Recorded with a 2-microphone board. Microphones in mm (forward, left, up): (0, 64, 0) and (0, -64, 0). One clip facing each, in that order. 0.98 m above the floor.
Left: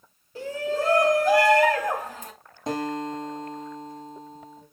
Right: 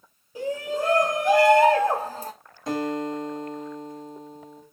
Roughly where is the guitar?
Left.